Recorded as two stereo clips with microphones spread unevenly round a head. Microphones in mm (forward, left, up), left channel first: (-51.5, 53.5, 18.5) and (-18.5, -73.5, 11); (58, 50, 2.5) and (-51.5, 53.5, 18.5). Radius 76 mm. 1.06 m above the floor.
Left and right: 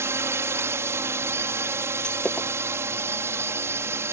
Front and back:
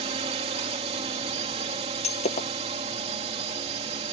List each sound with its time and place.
0.0 s a drone: 145° right
2.0 s breaking glass: 20° left